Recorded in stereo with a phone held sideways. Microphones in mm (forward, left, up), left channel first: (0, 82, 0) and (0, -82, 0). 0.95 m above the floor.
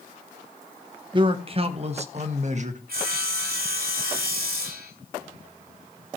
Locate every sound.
1.1 s a man speaking: 30° right (ahead or behind), 1.1 m; by 2.8 s 50° right (ahead or behind), 1.8 m
2.9 s sawing: 80° right, 3.5 m